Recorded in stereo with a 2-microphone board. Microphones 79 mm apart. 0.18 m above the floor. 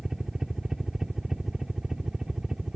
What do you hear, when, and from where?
0.0 s a helicopter: 5° right (ahead or behind)